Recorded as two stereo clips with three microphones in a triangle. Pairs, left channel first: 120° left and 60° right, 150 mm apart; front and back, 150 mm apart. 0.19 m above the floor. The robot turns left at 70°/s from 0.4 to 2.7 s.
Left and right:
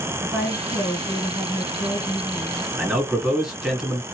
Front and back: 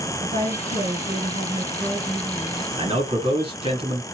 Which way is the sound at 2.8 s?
145° right.